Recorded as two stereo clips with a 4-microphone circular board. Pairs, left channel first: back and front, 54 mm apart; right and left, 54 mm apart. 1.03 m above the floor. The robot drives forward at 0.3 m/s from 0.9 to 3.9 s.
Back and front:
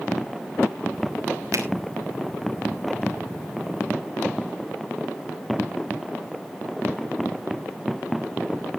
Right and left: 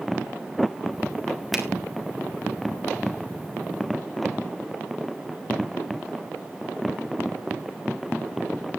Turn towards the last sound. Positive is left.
turn(degrees=5)